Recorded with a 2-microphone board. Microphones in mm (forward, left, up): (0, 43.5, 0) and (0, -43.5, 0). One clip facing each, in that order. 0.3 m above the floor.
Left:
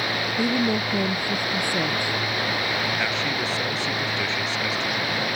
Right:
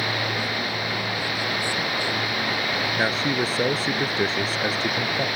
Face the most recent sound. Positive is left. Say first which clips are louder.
# right 3 dB
turn(degrees=-40)  # may be behind; listen again after turning